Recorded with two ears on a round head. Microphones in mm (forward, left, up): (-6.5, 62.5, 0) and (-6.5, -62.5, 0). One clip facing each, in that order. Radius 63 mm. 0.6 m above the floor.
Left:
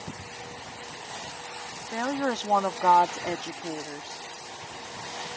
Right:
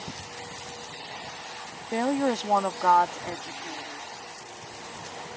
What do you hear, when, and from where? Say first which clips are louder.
1.9 s a woman speaking: right 3 dB; 30° right (ahead or behind); by 4.3 s 50° left (ahead or behind)